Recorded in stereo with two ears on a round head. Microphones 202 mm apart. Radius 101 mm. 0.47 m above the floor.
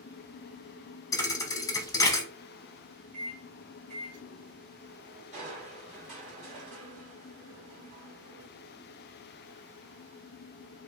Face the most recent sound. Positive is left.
turn(degrees=-35)  # may be behind; listen again after turning